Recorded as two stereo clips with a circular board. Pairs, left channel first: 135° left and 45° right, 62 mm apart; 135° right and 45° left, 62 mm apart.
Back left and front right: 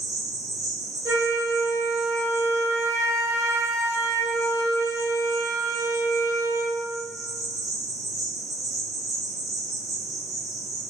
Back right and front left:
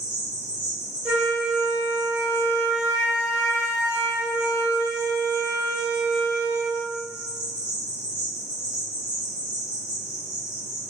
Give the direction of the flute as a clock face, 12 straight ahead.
1 o'clock.